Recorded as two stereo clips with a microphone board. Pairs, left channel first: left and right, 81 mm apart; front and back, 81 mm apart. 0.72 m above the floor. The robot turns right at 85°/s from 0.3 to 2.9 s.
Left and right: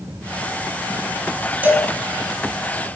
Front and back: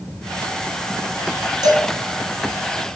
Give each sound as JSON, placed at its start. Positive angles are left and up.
{"t": 1.6, "sound": "a cowbell", "azimuth_deg": -155, "distance_m": 1.2}